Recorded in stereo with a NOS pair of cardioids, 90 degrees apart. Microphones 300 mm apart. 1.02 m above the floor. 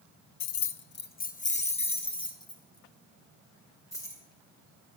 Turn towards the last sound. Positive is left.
turn(degrees=10)